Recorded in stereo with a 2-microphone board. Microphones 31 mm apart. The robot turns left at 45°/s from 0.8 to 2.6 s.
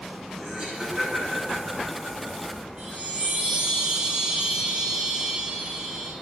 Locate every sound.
0.4 s laughter: 35° right (ahead or behind), 6 m; by 2.6 s 65° right (ahead or behind), 6 m
2.8 s a chime: 40° right (ahead or behind), 6 m